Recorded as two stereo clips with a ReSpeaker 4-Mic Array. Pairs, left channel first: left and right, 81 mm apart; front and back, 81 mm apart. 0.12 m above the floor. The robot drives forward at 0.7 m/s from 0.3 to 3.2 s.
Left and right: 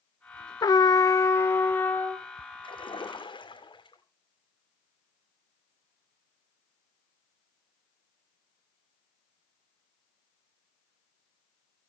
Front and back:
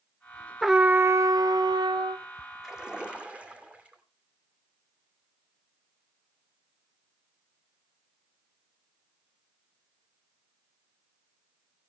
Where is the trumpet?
90° left, 0.5 m; by 2.2 s 160° left, 1.3 m.